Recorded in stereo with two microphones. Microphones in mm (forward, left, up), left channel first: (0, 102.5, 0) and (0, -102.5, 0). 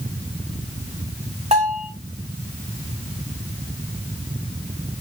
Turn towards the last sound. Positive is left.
turn(degrees=-30)  # may be behind; listen again after turning